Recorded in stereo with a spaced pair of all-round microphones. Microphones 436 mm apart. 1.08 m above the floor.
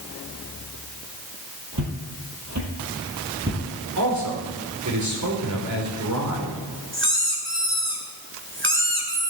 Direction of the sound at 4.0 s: 40° right (ahead or behind).